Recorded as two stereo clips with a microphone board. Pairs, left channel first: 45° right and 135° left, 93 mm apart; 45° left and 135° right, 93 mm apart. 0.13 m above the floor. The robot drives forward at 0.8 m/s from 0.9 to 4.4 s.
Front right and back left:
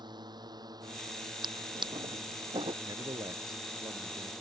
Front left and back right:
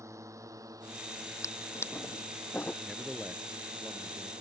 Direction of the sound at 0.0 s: 170° left.